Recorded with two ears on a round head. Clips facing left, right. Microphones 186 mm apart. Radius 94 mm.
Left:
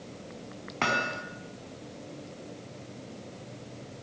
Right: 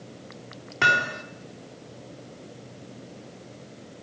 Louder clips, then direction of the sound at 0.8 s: Right 2 dB; 10° right (ahead or behind).